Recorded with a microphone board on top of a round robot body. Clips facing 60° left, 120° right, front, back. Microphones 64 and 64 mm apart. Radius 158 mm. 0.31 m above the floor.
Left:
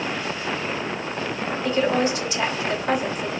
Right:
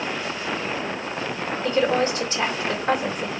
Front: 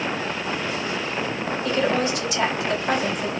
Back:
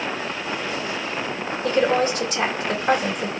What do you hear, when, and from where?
1.6 s a woman speaking: 170° right, 2 m